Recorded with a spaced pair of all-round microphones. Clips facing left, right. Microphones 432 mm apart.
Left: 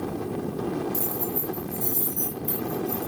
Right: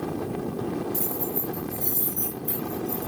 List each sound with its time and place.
0.9 s keys jangling: 60° left (ahead or behind), 6 m; by 3.1 s 75° left (ahead or behind), 7.5 m